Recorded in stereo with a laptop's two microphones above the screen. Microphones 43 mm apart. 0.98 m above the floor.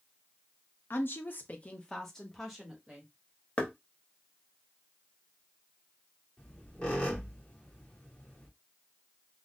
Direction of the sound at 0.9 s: 55° left (ahead or behind).